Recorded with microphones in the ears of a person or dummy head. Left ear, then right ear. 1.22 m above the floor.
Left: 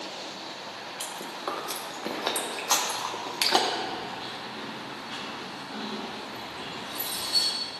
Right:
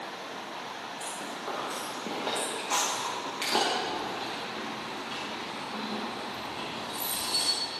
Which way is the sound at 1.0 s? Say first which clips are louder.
Left 4 dB; 75° left (ahead or behind).